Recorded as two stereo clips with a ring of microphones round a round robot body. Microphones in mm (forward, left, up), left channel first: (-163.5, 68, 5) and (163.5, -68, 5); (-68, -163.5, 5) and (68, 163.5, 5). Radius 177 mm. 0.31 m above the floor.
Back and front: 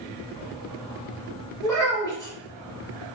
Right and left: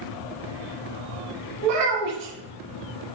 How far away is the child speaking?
About 1.8 m.